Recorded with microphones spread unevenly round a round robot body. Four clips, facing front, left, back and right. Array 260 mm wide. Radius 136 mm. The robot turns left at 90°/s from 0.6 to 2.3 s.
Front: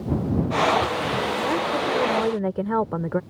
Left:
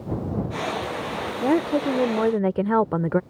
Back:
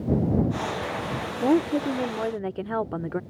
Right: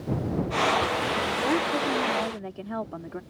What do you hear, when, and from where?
1.4 s a woman speaking: 160° left; by 3.2 s 80° left